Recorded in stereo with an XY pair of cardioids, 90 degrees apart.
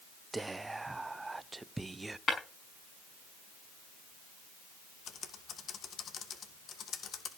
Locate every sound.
0.3 s whispering: 20° right, 0.8 m
2.3 s breaking glass: 40° left, 5.5 m
5.1 s typing on a keyboard: 65° left, 1.7 m